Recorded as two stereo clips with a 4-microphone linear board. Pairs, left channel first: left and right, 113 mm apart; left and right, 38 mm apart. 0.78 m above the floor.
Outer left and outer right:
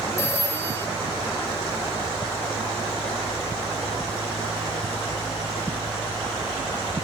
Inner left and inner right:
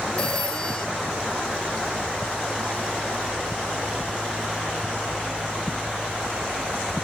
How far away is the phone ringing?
About 2.5 m.